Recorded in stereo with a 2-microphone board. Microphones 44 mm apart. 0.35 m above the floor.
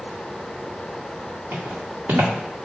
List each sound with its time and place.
1.5 s footsteps: 55° right (ahead or behind), 1.6 m